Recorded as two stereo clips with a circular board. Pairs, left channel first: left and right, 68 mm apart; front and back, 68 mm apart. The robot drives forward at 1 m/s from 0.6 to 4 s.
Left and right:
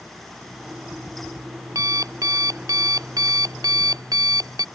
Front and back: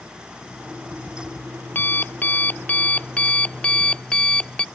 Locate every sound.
0.4 s an alarm clock: 55° right; by 4.7 s 75° right